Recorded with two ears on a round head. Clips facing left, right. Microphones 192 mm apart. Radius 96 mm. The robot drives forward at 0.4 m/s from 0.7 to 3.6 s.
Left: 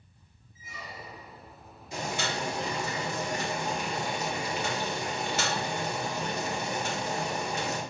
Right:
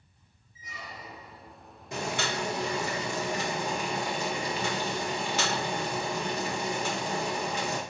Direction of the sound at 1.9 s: 45° right (ahead or behind).